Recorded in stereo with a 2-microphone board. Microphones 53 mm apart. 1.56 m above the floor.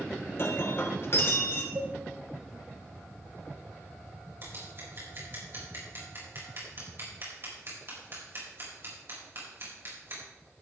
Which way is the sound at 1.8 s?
65° right (ahead or behind).